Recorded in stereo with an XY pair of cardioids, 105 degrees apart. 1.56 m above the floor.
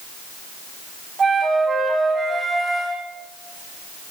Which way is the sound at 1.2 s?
40° right.